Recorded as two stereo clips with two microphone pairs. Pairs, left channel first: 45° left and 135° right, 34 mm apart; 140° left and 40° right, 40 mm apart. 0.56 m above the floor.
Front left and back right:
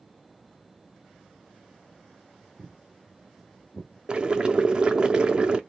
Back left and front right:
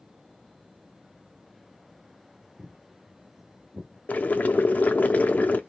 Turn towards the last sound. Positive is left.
turn(degrees=170)